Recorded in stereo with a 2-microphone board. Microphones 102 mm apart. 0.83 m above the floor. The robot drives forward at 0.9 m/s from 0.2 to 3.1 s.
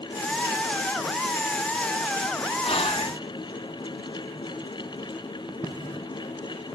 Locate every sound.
2.6 s whispering: 70° left (ahead or behind), 1.8 m; by 3.1 s 60° left (ahead or behind), 1.9 m